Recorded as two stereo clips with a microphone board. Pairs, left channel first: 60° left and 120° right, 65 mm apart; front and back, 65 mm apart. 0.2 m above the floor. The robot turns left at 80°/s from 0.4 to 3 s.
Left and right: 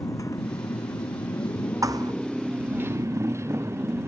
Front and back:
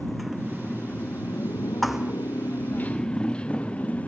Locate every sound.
0.0 s a motorcycle: 90° left; by 4.1 s 70° right
1.8 s a thud: 85° right; by 2.1 s 115° right